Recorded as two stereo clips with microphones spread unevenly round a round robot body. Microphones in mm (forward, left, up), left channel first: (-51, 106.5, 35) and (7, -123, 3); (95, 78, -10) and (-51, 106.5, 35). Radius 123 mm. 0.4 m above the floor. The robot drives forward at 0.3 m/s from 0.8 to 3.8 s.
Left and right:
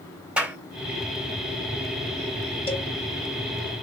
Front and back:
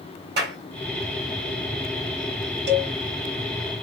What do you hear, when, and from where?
0.4 s a clap: 155° right, 2.5 m
2.7 s a cowbell: 175° left, 2 m